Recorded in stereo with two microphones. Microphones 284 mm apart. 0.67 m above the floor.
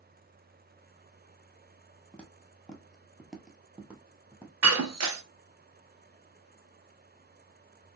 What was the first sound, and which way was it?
Footsteps, 5° left (ahead or behind).